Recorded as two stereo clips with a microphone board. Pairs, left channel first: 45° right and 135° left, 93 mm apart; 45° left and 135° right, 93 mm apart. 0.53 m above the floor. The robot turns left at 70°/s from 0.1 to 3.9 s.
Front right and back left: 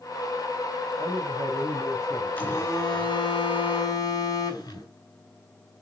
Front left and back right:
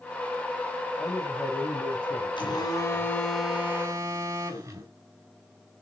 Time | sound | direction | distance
1.0 | a man speaking | 115° left | 2.5 m
2.4 | a phone buzzing | 20° left | 4.5 m